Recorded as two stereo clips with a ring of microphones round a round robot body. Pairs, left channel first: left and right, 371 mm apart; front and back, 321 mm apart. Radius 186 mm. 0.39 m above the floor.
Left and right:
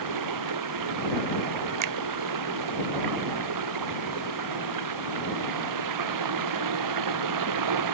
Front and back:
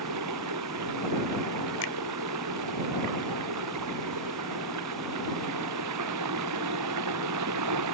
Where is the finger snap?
50° right.